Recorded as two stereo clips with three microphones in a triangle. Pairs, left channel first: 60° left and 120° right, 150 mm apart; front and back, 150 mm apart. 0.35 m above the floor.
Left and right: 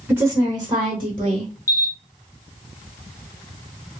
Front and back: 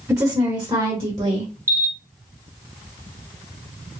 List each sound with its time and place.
0.1 s a woman speaking: 165° right, 0.9 m; by 1.5 s 155° right, 1.3 m
1.7 s a camera shutter: 115° left, 1.6 m